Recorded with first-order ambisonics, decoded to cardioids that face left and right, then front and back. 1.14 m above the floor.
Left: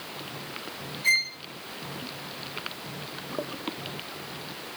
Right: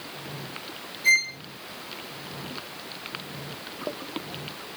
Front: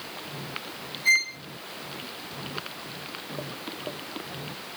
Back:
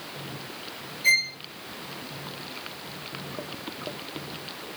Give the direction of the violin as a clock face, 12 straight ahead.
6 o'clock.